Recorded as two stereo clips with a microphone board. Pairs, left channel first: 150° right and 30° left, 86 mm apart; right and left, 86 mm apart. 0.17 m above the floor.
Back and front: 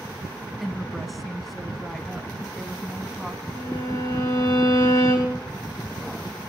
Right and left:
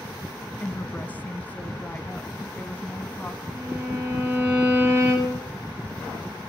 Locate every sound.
0.6 s a woman speaking: 60° right, 1.0 m
3.5 s a violin: 165° left, 6 m